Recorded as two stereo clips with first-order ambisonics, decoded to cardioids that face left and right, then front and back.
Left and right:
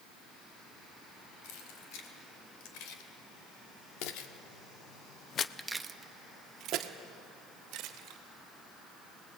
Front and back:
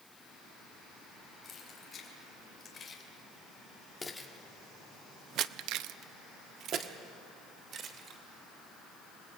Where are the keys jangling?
70° left, 4 m; by 8.2 s 125° right, 2.5 m.